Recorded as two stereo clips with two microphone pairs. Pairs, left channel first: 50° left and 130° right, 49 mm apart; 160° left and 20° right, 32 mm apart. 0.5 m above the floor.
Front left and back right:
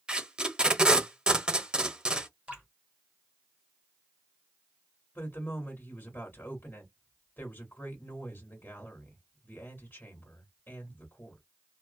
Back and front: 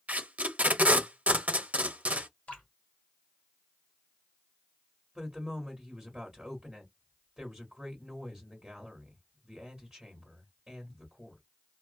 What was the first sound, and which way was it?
Tape being pulled, 55° right.